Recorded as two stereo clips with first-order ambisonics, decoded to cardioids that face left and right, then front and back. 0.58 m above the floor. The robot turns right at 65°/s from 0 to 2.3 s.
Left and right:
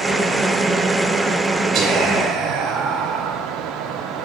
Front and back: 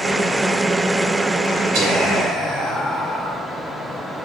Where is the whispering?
130° right, 2 m; by 3.4 s 95° right, 2 m.